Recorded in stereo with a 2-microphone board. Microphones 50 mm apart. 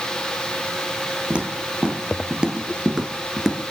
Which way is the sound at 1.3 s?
25° right (ahead or behind).